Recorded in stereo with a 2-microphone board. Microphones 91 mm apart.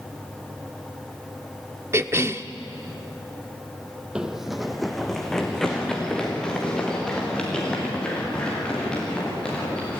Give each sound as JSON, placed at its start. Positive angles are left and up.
{"t": 1.9, "sound": "a cough", "side_deg": -30, "distance_m": 0.8}
{"t": 4.2, "sound": "running footsteps", "side_deg": -10, "distance_m": 1.1}